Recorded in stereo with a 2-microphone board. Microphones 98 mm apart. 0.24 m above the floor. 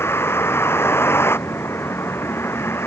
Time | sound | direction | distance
0.0 | a vehicle | 25° left (ahead or behind) | ?